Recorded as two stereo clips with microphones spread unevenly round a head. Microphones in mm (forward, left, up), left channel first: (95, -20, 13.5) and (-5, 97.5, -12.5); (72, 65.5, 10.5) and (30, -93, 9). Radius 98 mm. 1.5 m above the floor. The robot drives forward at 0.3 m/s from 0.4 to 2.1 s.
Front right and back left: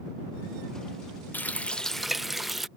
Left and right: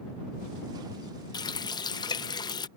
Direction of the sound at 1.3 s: 15° left.